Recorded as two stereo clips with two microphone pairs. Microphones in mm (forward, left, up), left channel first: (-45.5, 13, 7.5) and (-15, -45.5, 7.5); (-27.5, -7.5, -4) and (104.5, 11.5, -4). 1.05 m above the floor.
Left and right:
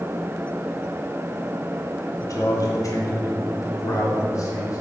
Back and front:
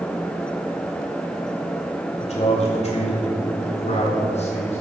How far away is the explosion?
No explosion in this recording.